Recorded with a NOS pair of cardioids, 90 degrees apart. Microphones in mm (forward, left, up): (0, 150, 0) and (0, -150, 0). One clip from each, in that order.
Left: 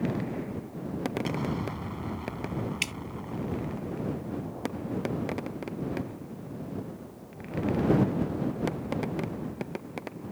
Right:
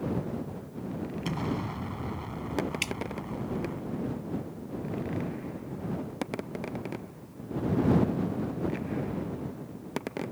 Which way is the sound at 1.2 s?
10° right.